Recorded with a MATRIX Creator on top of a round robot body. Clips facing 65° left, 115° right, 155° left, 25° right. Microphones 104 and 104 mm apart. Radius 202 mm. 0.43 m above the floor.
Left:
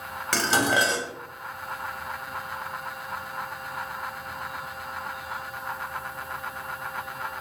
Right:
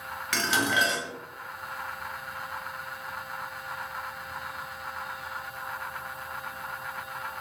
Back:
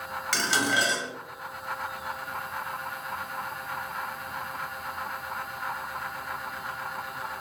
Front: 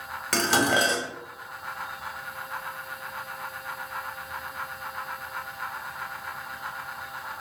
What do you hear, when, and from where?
0.3 s dishes clattering: 20° left, 1.2 m